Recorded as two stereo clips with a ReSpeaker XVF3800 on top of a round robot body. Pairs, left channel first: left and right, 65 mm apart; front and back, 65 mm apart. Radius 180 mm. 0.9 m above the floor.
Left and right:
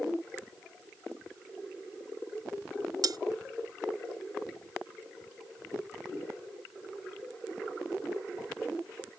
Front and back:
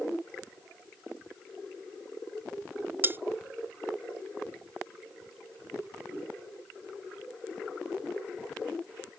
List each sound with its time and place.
3.0 s cutlery clinking: 120° right